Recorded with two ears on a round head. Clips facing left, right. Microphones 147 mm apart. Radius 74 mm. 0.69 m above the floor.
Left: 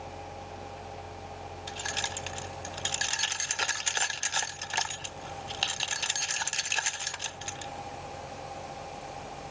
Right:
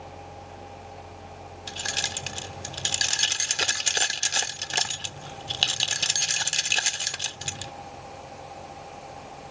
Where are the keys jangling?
40° right (ahead or behind).